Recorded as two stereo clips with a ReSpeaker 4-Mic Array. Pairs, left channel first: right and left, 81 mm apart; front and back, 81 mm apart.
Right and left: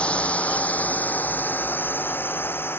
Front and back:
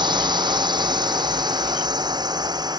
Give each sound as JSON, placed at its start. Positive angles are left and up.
{"t": 0.0, "sound": "a drone", "azimuth_deg": -165}